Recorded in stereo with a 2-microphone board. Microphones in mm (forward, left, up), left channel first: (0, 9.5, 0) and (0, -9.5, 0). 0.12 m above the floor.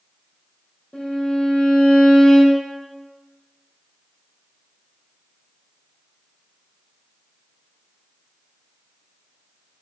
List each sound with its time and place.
0.9 s a violin: 70° left (ahead or behind), 3 m